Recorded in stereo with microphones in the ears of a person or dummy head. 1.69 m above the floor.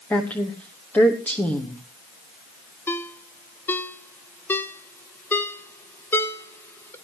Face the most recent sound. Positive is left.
turn(degrees=10)  # may be behind; listen again after turning